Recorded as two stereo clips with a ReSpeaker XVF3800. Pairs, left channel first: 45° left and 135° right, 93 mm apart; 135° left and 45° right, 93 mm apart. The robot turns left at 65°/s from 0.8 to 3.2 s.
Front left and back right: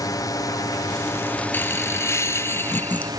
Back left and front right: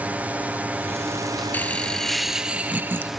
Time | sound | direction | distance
0.0 | a drone | 20° left | ?
1.5 | laughter | 85° left | ?